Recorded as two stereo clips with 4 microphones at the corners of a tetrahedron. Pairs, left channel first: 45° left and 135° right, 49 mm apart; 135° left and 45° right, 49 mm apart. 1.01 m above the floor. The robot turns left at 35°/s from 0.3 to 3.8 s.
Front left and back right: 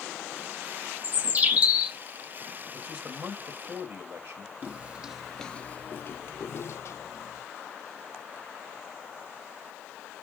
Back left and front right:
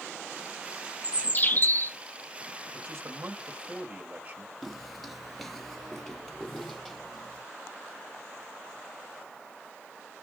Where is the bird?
170° right, 1.1 m; by 2.0 s 160° left, 1.1 m.